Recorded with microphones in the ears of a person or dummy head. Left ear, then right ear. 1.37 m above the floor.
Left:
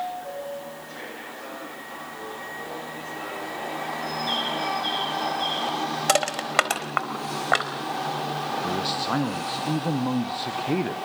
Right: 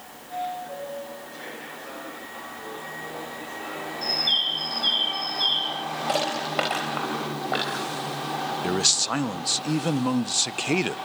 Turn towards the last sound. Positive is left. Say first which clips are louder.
# right 6 dB
turn(degrees=-80)